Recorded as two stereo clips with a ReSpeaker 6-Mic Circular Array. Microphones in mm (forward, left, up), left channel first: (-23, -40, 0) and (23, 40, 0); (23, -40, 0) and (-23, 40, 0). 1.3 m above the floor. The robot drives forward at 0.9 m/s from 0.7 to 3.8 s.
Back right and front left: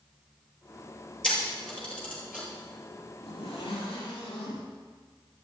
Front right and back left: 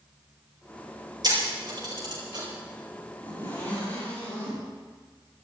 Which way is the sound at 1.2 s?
160° left.